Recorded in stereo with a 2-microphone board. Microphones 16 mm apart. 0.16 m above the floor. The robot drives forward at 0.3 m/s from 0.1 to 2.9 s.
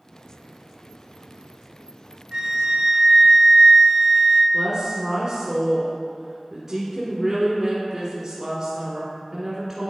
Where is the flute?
45° right (ahead or behind), 0.8 m.